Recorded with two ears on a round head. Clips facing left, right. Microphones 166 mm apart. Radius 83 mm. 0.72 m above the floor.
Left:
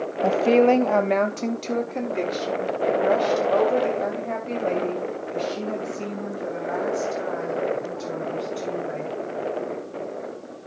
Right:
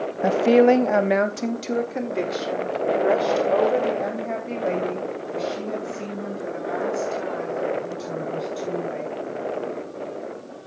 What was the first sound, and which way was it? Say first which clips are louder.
A woman speaking: right 2 dB; 10° right (ahead or behind).